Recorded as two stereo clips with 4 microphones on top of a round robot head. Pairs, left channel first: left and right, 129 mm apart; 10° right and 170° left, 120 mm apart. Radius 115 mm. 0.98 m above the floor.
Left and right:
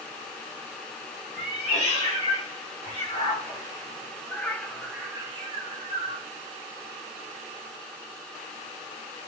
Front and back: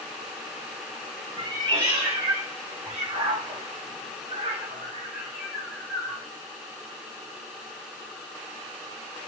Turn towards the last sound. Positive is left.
turn(degrees=-90)